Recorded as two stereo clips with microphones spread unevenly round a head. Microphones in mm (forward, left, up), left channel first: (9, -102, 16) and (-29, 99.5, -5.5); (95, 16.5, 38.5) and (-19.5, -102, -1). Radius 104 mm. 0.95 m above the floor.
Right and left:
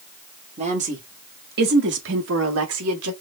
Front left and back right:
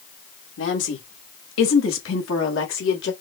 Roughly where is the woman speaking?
Ahead left.